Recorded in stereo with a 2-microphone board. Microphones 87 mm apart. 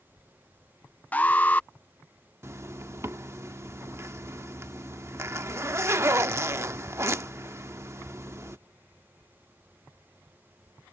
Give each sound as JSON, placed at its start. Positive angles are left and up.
{"t": 1.1, "sound": "an alarm", "side_deg": 20}
{"t": 2.4, "sound": "a zipper", "side_deg": -30}